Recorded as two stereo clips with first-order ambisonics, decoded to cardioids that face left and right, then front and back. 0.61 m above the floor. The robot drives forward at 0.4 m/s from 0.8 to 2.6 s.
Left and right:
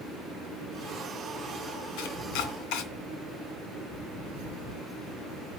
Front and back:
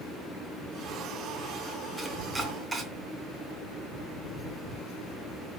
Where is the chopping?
100° left, 2.5 m; by 2.9 s 105° left, 2.5 m.